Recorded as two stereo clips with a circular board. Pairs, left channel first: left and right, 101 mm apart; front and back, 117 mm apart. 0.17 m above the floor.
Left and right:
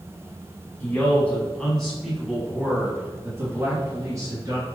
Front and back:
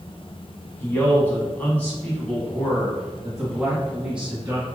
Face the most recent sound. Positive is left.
turn(degrees=-105)